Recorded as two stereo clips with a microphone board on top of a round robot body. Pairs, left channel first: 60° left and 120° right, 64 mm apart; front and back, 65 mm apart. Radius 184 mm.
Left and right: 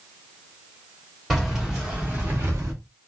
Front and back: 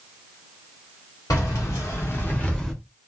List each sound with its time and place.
1.3 s keys jangling: 30° right, 1.3 m; by 2.7 s 85° right, 0.8 m